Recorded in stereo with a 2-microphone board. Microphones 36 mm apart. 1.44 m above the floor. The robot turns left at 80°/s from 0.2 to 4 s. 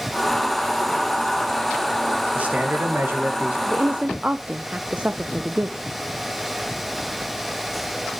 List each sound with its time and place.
2.3 s a man speaking: 35° right, 2 m; by 3.6 s 135° right, 2 m
3.7 s a woman speaking: 60° right (ahead or behind), 0.6 m; by 5.9 s 35° right (ahead or behind), 0.6 m